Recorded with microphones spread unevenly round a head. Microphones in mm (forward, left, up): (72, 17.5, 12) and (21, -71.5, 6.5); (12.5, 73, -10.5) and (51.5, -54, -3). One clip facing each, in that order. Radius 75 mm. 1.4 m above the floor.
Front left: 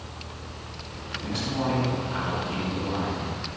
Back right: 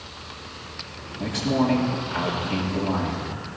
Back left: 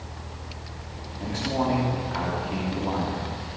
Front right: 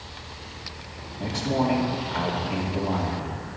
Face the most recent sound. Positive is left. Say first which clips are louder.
# back right 6 dB, front right 2 dB
turn(degrees=-155)